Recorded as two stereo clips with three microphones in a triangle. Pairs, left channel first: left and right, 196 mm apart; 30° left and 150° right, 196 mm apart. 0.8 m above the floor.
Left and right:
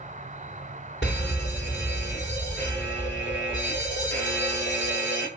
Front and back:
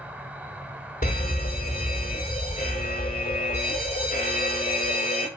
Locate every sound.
0.0 s an insect: 70° right, 0.7 m
1.0 s a fire alarm: 70° left, 4.5 m